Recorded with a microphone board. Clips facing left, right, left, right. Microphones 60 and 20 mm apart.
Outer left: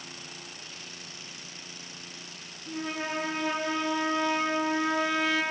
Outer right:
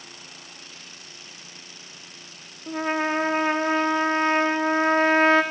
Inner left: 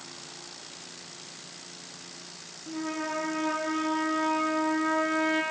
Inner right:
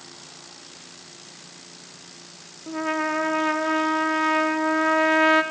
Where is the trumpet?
45° right (ahead or behind), 0.5 m.